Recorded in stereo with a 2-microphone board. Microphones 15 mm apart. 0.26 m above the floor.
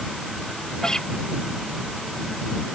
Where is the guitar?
40° left (ahead or behind).